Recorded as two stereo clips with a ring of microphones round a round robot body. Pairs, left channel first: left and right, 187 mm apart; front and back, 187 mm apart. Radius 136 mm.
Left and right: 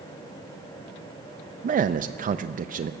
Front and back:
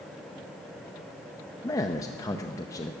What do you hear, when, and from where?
1.6 s a man speaking: 70° right, 0.5 m